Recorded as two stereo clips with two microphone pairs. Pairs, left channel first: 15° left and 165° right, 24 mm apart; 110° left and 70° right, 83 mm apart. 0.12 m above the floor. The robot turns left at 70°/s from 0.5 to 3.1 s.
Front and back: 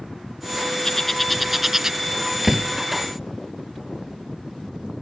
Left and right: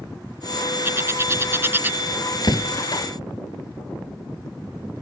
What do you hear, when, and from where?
0.8 s a bird: 40° right; by 2.0 s 120° right
2.4 s a door slam: 120° left; by 2.7 s 105° left